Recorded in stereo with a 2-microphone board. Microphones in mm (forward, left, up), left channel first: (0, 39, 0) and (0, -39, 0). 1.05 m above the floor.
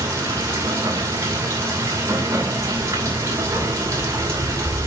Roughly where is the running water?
Right.